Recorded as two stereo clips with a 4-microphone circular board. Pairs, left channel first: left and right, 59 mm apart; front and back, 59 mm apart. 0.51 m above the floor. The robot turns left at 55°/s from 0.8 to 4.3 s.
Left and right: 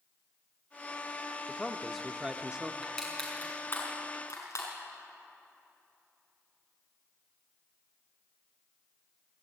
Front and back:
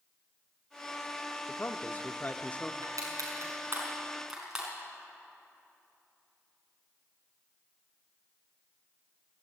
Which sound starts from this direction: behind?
Crushing, at 2.8 s.